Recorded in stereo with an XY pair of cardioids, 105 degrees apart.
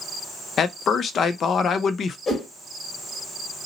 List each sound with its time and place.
0.6 s a man speaking: 55° left, 0.5 m
2.3 s a whoosh: 35° left, 1.2 m